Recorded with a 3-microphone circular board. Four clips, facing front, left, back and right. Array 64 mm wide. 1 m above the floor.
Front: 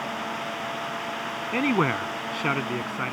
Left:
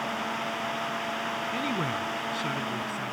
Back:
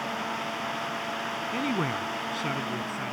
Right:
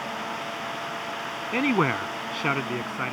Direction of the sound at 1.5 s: 50° right.